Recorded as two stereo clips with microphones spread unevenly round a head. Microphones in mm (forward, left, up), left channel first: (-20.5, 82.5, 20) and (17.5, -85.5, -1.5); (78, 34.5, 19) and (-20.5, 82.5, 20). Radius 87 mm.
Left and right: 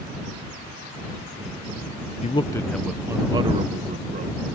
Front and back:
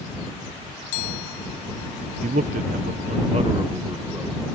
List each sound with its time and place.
2.2 s a man speaking: 160° left; by 4.4 s 125° right